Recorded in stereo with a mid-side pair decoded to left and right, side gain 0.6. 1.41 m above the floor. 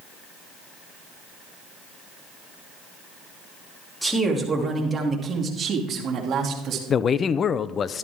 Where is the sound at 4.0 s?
5° right, 3 m; by 6.8 s 50° right, 3 m.